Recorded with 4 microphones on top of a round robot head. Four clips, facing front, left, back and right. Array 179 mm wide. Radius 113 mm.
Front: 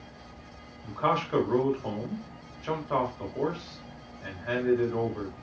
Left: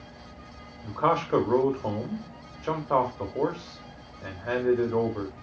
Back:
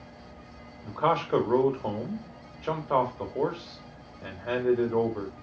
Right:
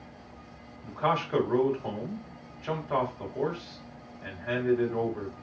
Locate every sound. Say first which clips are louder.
0.8 s a man speaking: left 3 dB, back 2 dB; 130° left, 1.5 m